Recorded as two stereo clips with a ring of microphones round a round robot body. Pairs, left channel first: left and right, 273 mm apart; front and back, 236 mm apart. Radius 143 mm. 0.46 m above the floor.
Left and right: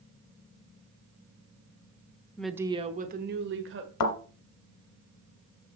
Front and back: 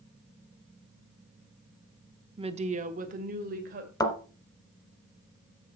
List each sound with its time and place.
2.4 s a woman speaking: 165° left, 0.8 m; by 3.9 s 125° right, 1.8 m
4.0 s a thud: 75° left, 1.6 m